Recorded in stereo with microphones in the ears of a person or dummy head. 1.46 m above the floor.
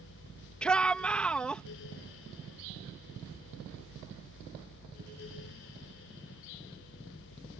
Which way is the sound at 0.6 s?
5° left (ahead or behind).